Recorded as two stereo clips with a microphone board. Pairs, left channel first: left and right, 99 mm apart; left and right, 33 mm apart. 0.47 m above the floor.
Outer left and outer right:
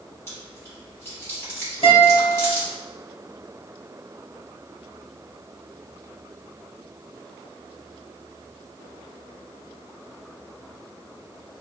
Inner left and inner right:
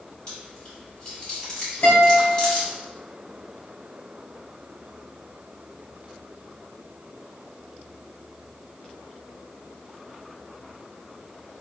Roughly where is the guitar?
Left.